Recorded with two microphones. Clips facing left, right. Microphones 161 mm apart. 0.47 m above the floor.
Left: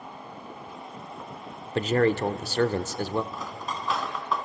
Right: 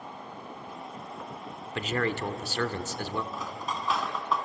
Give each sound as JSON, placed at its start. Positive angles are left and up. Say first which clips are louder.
{"t": 1.8, "sound": "a man speaking", "louder": "left 7 dB", "side_deg": 40, "distance_m": 1.0}
{"t": 3.3, "sound": "cutlery clinking", "louder": "even", "side_deg": -5, "distance_m": 2.5}